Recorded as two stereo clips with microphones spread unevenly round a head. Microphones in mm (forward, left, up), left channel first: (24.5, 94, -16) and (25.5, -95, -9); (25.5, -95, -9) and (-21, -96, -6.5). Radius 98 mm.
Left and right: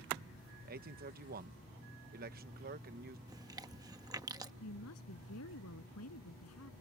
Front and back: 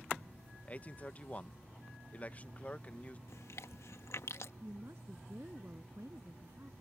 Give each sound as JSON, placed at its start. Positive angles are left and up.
{"t": 0.7, "sound": "a man speaking", "azimuth_deg": -50}
{"t": 3.3, "sound": "chewing", "azimuth_deg": -20}
{"t": 4.6, "sound": "a woman speaking", "azimuth_deg": 110}